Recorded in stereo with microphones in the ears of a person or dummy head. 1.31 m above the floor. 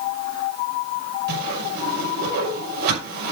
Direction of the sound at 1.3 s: 60° right (ahead or behind).